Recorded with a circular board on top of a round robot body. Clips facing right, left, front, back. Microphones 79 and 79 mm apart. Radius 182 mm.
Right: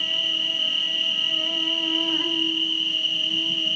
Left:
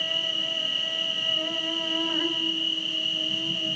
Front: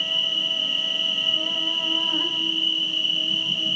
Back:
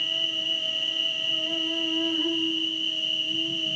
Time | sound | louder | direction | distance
0.0 | an insect | right 2 dB, front 3 dB | 25° left | 2 m